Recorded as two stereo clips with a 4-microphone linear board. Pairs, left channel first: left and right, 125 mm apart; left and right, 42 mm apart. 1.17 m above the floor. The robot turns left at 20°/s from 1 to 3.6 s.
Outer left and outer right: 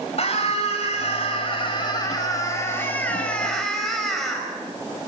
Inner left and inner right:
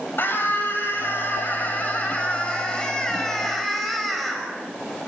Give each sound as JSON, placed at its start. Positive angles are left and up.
{"t": 0.2, "sound": "a scream", "azimuth_deg": 55, "distance_m": 6.0}